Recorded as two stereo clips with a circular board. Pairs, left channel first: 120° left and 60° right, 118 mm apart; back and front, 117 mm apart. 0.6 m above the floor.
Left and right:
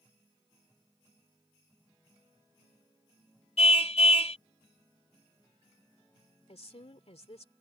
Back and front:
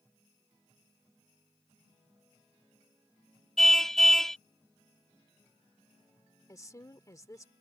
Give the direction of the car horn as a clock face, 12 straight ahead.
9 o'clock.